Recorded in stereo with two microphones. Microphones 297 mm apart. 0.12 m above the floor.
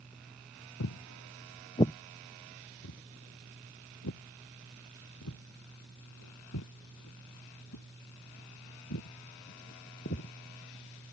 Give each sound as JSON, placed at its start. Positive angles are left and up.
{"t": 0.8, "sound": "footsteps", "side_deg": 70}
{"t": 2.8, "sound": "footsteps", "side_deg": 60}